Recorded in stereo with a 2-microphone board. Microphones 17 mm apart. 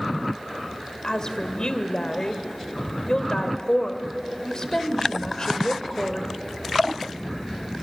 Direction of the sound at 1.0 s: 40° left (ahead or behind).